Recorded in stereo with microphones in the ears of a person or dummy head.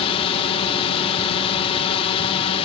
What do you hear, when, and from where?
0.0 s a drone: 30° left (ahead or behind)